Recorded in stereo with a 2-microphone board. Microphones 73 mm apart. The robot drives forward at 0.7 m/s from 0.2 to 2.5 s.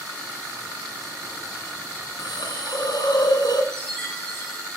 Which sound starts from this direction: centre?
A chime, at 3.7 s.